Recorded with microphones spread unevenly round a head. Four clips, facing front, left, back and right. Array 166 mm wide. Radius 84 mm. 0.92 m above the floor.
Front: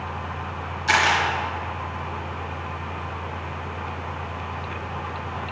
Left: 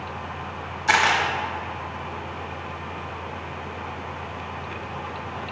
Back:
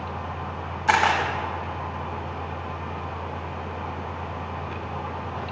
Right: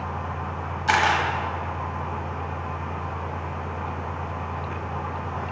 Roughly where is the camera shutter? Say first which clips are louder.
Even, back 1 dB; behind.